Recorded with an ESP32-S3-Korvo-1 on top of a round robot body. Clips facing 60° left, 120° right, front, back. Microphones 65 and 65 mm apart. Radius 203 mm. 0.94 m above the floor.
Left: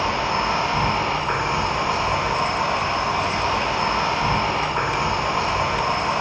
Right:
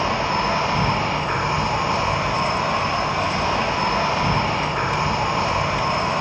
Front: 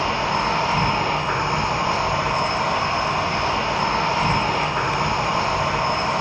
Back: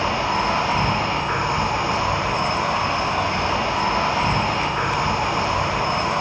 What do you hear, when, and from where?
0.0 s an insect: 50° right, 1.5 m